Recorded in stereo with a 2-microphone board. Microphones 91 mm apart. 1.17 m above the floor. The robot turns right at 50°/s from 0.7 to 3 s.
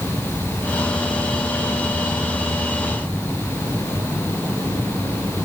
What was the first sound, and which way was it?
Only background noise.